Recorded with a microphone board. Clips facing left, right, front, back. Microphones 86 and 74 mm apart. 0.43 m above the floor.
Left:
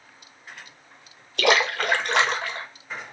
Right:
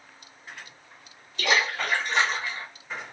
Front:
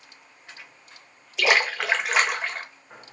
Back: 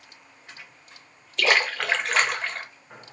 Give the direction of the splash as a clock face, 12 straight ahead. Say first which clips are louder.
Left 4 dB, front 1 dB; 9 o'clock.